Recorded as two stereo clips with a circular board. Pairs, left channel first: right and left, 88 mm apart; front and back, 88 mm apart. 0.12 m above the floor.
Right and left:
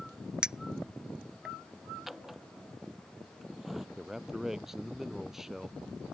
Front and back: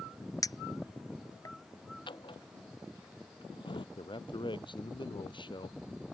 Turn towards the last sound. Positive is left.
turn(degrees=5)